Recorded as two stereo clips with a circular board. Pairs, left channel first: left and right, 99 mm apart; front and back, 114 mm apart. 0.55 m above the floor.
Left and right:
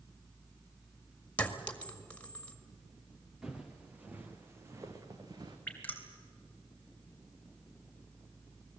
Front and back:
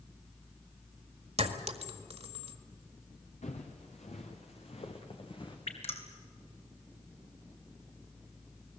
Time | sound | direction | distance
1.4 | a clink | 165° left | 1.7 m
3.4 | footsteps | 5° right | 3 m
5.7 | dripping | 20° left | 3 m